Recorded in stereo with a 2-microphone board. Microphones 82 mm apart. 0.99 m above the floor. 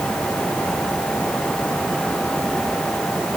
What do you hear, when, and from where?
Only background noise.